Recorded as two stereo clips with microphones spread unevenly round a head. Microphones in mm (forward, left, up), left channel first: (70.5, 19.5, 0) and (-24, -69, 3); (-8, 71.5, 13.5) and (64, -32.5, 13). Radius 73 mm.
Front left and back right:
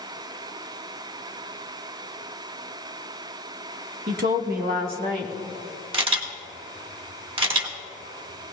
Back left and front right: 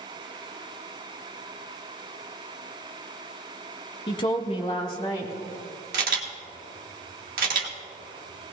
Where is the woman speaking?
175° right, 0.9 m.